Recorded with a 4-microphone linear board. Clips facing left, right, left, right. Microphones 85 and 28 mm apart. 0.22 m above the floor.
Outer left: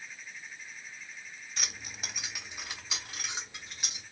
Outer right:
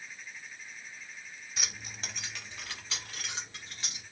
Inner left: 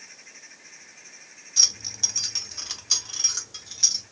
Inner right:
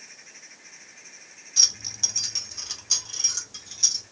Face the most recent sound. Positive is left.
turn(degrees=20)  # may be behind; listen again after turning